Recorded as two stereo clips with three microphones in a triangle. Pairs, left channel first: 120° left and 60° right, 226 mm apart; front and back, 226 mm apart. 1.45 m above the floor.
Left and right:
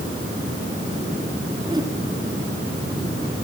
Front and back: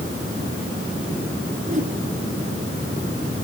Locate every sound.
1.7 s a whoosh: 130° right, 3 m